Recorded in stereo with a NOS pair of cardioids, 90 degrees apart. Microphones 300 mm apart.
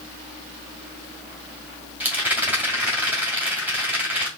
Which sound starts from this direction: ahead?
A rattle, at 2.0 s.